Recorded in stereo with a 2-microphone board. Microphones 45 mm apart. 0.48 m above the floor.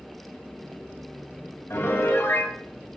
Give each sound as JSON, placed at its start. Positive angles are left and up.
{"t": 1.7, "sound": "a piano", "side_deg": 65, "distance_m": 2.0}